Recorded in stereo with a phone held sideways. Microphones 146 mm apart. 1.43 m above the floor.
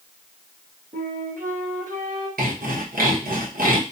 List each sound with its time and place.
0.9 s a flute: 60° right (ahead or behind), 2.5 m
2.4 s sawing: 80° right, 1.1 m